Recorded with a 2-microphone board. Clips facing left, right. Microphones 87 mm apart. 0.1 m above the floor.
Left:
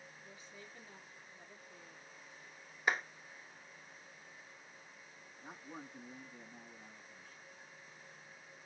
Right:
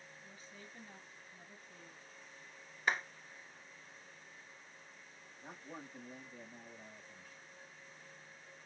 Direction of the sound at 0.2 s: 35° right (ahead or behind).